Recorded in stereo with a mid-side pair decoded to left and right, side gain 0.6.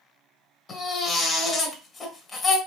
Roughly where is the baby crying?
Ahead left.